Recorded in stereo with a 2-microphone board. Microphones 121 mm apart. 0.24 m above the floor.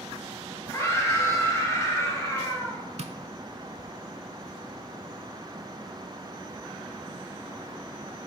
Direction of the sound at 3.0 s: 70° right (ahead or behind).